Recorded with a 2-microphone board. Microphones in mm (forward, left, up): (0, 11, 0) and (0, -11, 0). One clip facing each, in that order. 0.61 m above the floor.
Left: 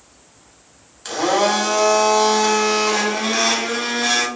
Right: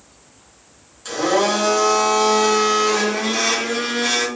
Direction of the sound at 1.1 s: 25° left (ahead or behind).